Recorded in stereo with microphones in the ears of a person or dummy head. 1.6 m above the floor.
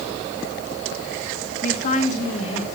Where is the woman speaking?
45° left (ahead or behind), 2.5 m; by 2.6 s 30° left (ahead or behind), 4 m.